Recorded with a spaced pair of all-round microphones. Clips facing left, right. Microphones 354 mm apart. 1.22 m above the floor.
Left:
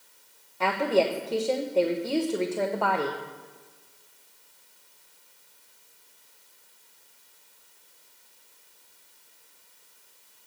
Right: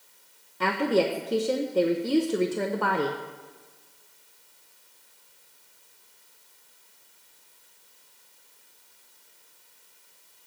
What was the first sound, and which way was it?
A woman speaking, 25° right (ahead or behind).